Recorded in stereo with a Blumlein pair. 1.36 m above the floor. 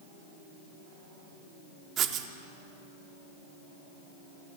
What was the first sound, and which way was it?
Writing, 30° right.